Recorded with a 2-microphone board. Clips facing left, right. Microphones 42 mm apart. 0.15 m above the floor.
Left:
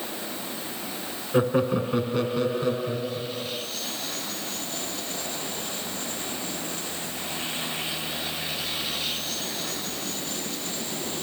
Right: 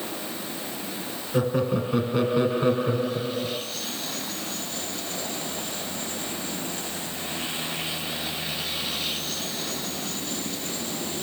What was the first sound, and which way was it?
Laughter, 20° left (ahead or behind).